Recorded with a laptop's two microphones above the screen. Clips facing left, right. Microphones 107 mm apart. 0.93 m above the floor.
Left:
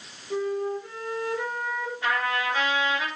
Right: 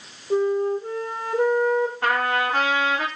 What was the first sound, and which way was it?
A flute, 35° right (ahead or behind).